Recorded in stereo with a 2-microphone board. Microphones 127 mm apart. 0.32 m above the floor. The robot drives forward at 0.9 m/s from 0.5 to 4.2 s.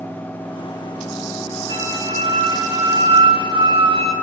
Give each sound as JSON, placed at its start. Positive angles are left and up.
{"t": 1.7, "sound": "a flute", "side_deg": -35, "distance_m": 2.5}